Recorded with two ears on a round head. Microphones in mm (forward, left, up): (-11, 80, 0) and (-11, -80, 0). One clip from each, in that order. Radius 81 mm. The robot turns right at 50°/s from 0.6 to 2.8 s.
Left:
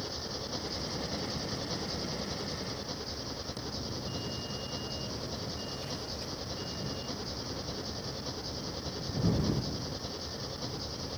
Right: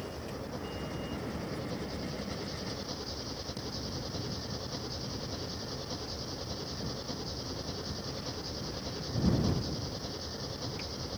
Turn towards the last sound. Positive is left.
turn(degrees=175)